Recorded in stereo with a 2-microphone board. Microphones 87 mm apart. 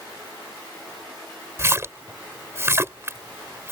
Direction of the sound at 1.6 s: 30° right (ahead or behind).